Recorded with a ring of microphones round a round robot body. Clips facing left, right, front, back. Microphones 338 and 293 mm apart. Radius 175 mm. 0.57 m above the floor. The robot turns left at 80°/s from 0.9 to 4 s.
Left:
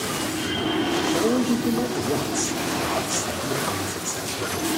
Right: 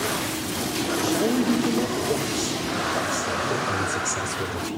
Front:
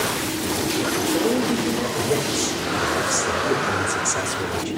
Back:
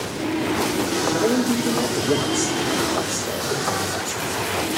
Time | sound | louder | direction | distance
1.0 | a man speaking | right 1 dB, back 1 dB | 125° right | 1.8 m